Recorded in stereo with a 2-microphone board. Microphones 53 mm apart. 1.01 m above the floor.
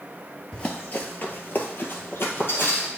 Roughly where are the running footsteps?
Left.